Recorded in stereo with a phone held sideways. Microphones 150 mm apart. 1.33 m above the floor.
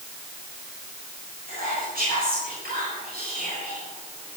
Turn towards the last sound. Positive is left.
turn(degrees=-85)